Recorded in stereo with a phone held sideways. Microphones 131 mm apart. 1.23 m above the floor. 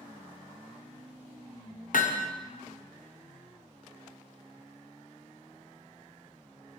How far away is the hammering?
About 1.0 m.